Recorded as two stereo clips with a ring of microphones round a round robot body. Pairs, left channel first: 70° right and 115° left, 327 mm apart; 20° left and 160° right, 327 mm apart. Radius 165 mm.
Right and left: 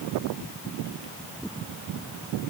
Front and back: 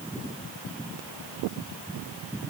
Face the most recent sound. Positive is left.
No sound to turn to.